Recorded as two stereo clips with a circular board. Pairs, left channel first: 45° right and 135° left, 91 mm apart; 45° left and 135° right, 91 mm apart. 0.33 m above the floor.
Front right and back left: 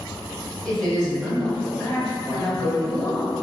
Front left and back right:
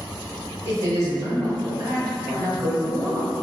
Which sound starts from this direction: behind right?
A woman speaking, at 0.7 s.